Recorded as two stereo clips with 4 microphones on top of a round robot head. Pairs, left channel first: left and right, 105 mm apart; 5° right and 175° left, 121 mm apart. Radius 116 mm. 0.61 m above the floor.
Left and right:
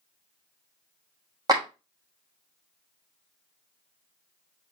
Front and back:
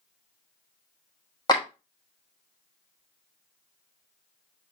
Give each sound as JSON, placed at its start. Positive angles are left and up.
{"t": 1.5, "sound": "a clap", "azimuth_deg": -50, "distance_m": 1.4}